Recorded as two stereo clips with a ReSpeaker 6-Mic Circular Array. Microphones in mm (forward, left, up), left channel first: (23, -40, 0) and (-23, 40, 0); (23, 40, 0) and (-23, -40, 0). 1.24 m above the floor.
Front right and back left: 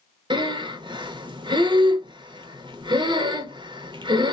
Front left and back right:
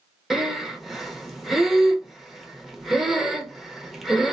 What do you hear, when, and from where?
0.3 s breathing: 150° left, 0.6 m